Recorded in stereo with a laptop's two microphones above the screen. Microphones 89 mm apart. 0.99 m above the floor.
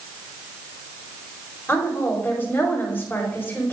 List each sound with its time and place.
1.7 s a woman speaking: 25° left (ahead or behind), 4 m